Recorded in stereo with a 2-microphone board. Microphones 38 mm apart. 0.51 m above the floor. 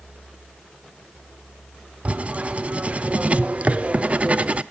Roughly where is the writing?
Right.